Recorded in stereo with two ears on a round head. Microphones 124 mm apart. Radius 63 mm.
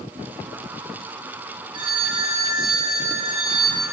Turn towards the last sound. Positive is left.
turn(degrees=-40)  # may be behind; listen again after turning